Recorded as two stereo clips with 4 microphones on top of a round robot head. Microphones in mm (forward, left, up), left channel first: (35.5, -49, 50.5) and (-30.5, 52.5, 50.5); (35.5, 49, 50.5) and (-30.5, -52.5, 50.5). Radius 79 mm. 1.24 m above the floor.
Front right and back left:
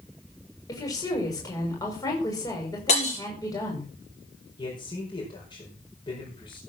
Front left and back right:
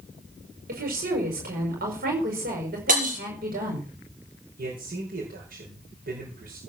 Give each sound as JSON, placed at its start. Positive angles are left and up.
{"t": 0.7, "sound": "a woman speaking", "azimuth_deg": -125, "distance_m": 5.5}
{"t": 2.9, "sound": "breaking glass", "azimuth_deg": -95, "distance_m": 6.0}
{"t": 4.6, "sound": "a man speaking", "azimuth_deg": -110, "distance_m": 5.0}